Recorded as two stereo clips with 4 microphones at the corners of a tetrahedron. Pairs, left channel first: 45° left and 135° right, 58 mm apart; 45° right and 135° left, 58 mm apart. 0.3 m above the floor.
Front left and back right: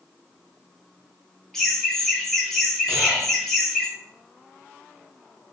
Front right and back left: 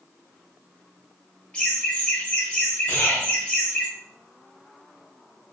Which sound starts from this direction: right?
Whispering, at 2.9 s.